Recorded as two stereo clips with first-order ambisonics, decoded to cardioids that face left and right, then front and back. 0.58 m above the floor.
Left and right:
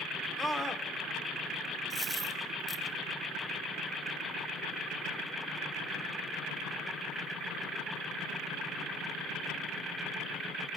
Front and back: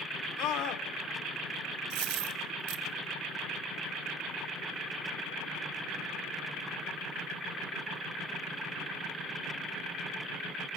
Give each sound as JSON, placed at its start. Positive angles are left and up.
{"t": 0.4, "sound": "a scream", "azimuth_deg": 0, "distance_m": 1.7}
{"t": 1.9, "sound": "a dropped coin", "azimuth_deg": -170, "distance_m": 2.0}